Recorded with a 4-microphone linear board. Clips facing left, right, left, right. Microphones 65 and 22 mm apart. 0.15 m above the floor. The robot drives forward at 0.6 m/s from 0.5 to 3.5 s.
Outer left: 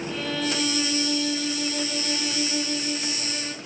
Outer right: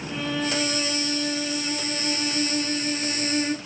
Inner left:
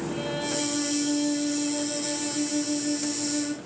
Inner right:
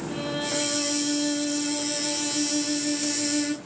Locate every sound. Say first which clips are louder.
0.1 s a violin: outer right 3 dB, inner right 3 dB; 15° right (ahead or behind), 3 m; by 3.5 s 30° right (ahead or behind), 1.5 m